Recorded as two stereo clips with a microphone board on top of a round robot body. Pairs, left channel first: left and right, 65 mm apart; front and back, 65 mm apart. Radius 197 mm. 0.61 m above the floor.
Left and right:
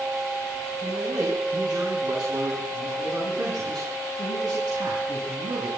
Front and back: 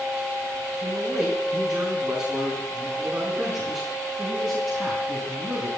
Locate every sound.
0.8 s a man speaking: 100° right, 6.5 m; by 5.7 s 80° right, 7.5 m